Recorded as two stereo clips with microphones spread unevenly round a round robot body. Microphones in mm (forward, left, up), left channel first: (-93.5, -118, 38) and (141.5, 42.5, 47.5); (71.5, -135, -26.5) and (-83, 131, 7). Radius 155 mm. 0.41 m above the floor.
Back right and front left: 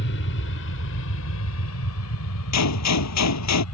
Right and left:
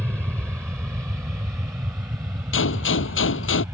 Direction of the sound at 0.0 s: 150° right.